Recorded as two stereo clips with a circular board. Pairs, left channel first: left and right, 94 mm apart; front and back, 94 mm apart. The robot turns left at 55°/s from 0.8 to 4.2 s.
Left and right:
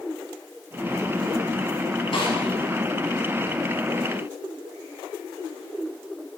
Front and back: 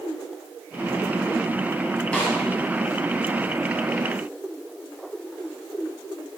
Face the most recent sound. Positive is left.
turn(degrees=-35)